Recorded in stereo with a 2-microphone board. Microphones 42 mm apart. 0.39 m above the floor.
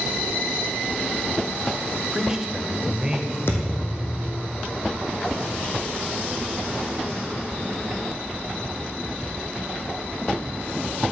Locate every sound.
2.1 s a man speaking: 15° right (ahead or behind), 1.3 m
3.5 s a thud: 75° left (ahead or behind), 2.5 m